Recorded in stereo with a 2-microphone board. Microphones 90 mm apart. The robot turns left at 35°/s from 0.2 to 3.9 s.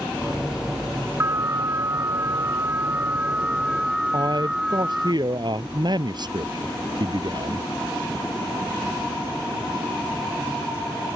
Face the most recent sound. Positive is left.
turn(degrees=-55)  # may be behind; listen again after turning